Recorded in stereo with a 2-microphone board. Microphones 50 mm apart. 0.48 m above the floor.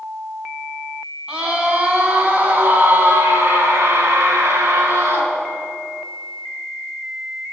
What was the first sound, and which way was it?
A scream, 20° right (ahead or behind).